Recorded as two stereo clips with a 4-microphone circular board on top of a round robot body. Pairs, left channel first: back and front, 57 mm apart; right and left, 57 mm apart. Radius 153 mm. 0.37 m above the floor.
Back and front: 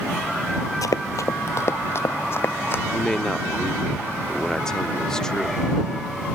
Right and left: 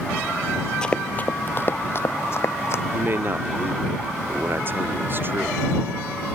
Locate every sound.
0.8 s running footsteps: 165° right; by 2.8 s 130° right
2.9 s a man speaking: 105° left